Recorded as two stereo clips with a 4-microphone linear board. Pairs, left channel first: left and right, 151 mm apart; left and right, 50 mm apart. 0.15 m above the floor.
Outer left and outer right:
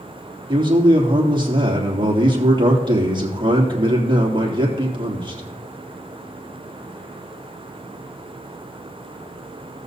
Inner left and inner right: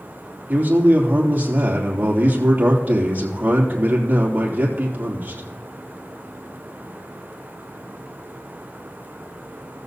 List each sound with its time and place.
0.5 s a man speaking: 30° right (ahead or behind), 3 m